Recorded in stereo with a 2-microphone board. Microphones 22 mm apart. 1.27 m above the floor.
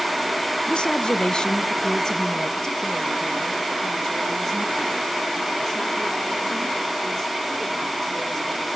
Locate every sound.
0.7 s a woman speaking: 45° left (ahead or behind), 0.9 m; by 8.7 s 15° left (ahead or behind), 5 m